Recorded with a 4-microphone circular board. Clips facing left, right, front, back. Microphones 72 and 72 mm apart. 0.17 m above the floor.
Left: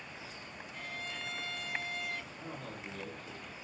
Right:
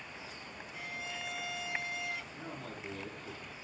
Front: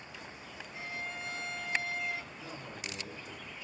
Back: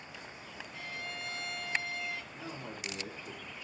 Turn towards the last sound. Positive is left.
turn(degrees=-135)